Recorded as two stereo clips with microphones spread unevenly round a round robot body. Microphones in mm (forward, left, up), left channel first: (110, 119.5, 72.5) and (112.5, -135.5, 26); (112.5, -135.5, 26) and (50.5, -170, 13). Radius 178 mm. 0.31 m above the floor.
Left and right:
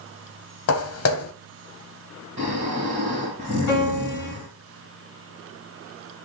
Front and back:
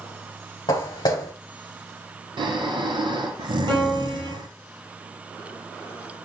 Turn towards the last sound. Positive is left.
turn(degrees=150)